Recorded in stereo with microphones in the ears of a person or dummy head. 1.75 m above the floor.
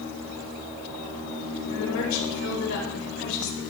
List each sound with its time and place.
1.7 s a woman speaking: 80° left, 4 m